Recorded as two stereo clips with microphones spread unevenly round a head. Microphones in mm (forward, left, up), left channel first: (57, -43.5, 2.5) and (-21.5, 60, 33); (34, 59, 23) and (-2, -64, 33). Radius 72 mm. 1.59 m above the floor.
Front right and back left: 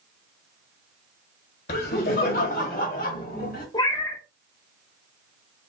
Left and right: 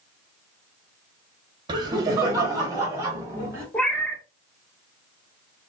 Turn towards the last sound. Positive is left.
turn(degrees=-5)